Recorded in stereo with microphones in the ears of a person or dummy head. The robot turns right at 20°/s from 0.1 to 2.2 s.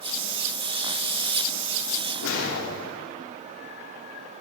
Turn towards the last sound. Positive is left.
turn(degrees=65)  # may be behind; listen again after turning